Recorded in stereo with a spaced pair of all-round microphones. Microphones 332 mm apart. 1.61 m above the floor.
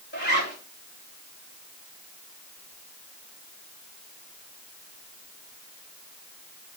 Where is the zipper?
35° left (ahead or behind), 3 m.